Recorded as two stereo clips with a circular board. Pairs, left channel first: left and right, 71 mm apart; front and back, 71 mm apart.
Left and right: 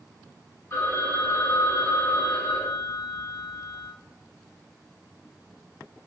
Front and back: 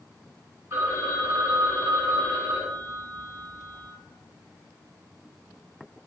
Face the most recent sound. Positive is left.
turn(degrees=145)